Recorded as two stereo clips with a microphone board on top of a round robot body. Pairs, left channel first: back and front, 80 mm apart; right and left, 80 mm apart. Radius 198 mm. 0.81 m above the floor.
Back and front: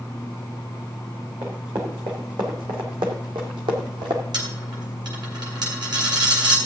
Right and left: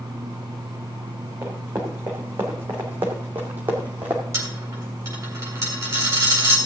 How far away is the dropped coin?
About 3 m.